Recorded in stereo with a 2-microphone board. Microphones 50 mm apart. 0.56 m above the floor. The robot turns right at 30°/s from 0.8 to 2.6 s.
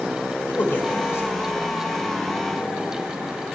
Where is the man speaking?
40° left (ahead or behind), 1.9 m; by 1.7 s 65° left (ahead or behind), 1.9 m.